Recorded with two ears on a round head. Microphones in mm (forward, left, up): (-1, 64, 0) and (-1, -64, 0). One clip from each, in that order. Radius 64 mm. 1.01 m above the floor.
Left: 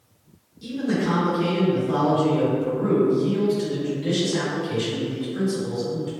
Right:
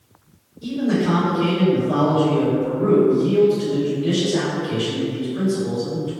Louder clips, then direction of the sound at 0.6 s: Right 4 dB; 75° left (ahead or behind).